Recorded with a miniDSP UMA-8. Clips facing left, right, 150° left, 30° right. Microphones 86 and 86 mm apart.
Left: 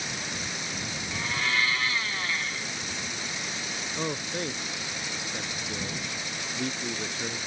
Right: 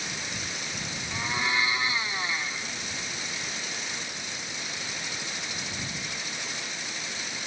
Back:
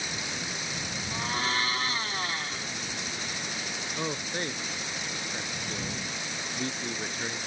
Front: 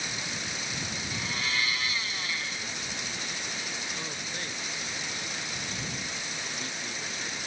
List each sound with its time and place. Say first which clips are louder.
1.1 s a blender: right 1 dB, back 4 dB; 160° right
4.0 s a man speaking: left 8 dB, back 5 dB; 100° left